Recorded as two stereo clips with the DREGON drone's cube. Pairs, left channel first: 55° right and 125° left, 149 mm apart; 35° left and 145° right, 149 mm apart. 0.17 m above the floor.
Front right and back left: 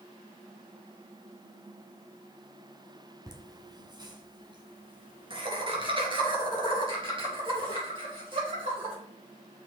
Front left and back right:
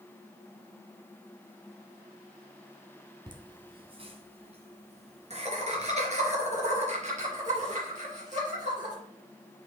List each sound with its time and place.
3.3 s laughter: 175° left, 1.6 m